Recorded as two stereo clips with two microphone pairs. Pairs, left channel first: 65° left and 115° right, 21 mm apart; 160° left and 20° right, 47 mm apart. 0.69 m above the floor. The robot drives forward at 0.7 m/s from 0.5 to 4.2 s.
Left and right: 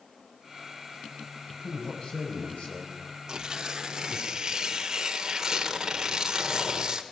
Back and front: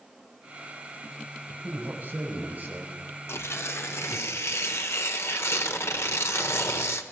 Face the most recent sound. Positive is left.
turn(degrees=-175)